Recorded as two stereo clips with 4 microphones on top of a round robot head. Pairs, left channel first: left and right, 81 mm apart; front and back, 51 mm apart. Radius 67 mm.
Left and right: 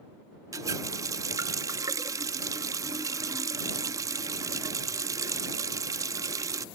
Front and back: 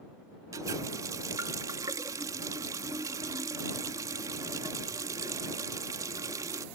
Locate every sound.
0.5 s a running tap: 140° right